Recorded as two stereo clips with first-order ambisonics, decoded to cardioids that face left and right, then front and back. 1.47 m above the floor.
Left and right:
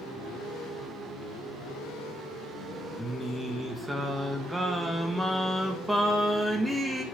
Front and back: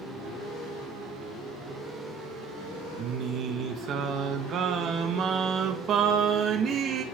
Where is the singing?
170° right, 0.8 m.